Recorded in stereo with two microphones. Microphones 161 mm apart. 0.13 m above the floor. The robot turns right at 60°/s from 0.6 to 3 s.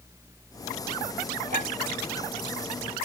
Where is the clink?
50° right (ahead or behind), 1.4 m; by 1.7 s 40° right (ahead or behind), 1.4 m.